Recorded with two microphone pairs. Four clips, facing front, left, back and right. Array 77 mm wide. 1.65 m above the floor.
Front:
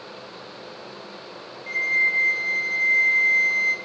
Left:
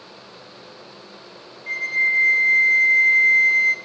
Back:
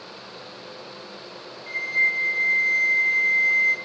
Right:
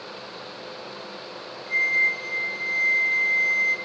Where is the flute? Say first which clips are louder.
Left 1 dB, front 1 dB; 75° left, 0.7 m.